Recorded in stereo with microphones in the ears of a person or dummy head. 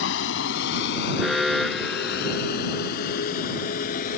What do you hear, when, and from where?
0.0 s a vehicle: 80° left; by 4.2 s 55° left (ahead or behind)
1.2 s an alarm: centre (ahead or behind)